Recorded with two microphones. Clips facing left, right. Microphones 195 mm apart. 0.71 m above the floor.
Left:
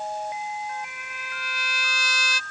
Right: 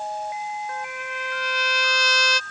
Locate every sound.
0.7 s a trumpet: 70° right (ahead or behind)